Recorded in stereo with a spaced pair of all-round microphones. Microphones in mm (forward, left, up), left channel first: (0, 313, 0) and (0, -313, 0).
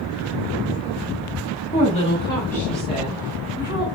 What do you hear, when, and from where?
1.7 s a woman speaking: 20° left (ahead or behind), 1.8 m; by 3.9 s 10° right (ahead or behind), 0.9 m